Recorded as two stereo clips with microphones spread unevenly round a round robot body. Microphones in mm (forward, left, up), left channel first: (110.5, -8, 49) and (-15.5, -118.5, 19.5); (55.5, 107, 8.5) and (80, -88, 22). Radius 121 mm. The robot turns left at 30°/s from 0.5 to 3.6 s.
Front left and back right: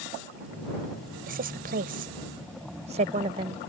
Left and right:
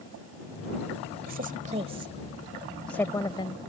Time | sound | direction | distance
1.3 | a woman speaking | 130° right | ?